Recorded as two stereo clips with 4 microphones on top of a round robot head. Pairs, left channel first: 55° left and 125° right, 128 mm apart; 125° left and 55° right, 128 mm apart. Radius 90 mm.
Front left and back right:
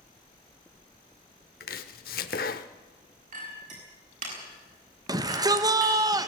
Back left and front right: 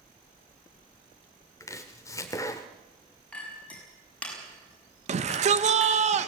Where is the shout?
65° right, 1.5 m.